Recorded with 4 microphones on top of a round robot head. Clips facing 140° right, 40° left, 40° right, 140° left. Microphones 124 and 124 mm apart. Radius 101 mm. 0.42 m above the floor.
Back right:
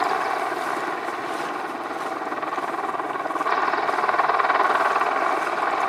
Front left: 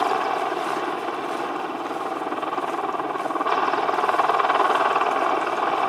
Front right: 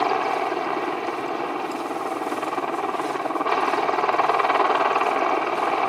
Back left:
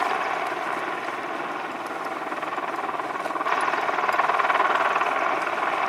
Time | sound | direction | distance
0.0 | a helicopter | 25° right | ?